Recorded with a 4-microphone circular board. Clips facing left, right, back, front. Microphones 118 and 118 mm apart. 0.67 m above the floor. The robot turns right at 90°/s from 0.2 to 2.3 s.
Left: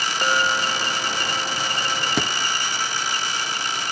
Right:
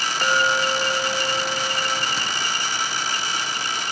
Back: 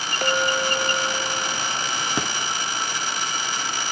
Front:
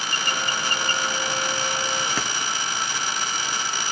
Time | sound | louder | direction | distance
0.2 | a clink | right 1 dB, back 8 dB | 170° left | 1.2 m
2.2 | a thud | left 6 dB, back 2 dB | 110° left | 1.9 m